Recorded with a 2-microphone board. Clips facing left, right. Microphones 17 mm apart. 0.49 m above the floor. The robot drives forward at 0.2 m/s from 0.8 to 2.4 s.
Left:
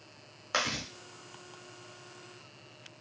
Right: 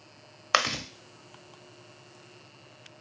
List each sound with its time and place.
0.5 s chewing: 45° right (ahead or behind), 0.6 m; by 0.8 s 40° right (ahead or behind), 0.6 m